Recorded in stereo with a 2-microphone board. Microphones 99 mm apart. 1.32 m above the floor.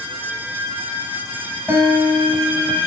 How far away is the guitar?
About 5.5 m.